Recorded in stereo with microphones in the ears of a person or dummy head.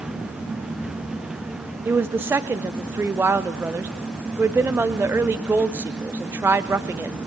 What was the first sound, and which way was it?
A woman speaking, 15° right (ahead or behind).